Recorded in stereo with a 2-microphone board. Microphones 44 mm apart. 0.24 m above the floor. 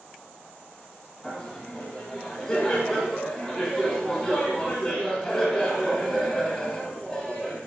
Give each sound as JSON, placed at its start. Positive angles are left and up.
{"t": 1.2, "sound": "laughter", "side_deg": 10, "distance_m": 1.3}